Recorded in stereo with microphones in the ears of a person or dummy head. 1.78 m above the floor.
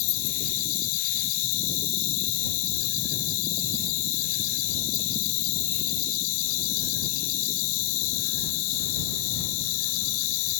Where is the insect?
80° left.